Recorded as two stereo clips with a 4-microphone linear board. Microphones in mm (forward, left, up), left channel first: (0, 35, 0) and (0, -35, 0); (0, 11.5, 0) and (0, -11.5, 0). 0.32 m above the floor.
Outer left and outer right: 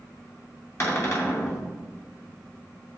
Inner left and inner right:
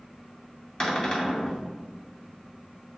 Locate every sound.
0.8 s a cupboard door: 40° left (ahead or behind), 2.5 m